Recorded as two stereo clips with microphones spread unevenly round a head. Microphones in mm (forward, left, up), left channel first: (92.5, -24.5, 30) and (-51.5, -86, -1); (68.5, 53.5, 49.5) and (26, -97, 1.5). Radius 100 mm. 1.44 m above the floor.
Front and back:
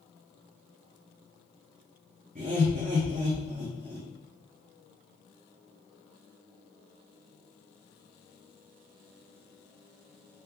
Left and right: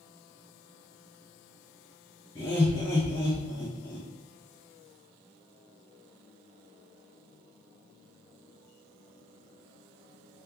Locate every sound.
2.4 s laughter: 145° left, 0.7 m